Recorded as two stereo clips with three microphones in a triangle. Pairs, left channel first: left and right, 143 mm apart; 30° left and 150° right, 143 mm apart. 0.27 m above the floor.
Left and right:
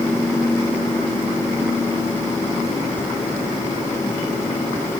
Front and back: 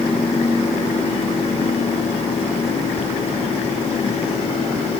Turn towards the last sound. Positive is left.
No sound to turn to.